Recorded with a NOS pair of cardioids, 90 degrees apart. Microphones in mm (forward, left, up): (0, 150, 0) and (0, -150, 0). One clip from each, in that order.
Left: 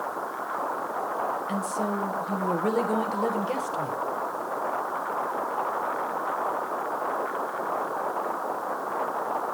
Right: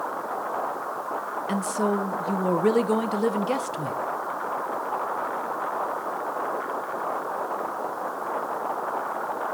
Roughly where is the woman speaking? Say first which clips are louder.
Right 3 dB; ahead right.